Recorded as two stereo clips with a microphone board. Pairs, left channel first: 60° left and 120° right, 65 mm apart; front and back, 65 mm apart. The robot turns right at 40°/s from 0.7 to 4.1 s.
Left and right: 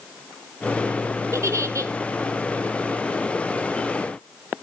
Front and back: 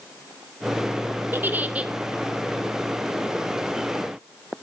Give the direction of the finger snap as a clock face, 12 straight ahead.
No finger snap in this recording.